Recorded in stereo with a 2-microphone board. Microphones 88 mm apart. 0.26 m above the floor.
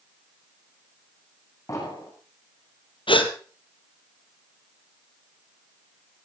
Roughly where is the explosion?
Left.